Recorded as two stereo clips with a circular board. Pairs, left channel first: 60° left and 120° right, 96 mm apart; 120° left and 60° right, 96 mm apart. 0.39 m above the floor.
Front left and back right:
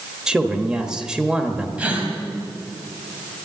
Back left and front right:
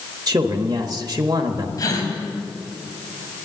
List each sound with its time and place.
0.3 s a man speaking: 40° right, 1.1 m
1.8 s a gasp: 165° left, 3 m